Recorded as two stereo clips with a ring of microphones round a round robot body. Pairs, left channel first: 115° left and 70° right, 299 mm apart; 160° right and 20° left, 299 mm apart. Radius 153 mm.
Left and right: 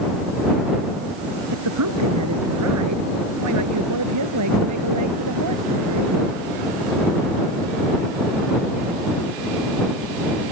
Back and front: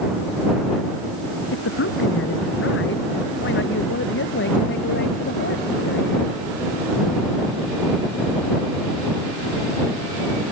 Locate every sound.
1.5 s a man speaking: 105° right; by 6.4 s 100° right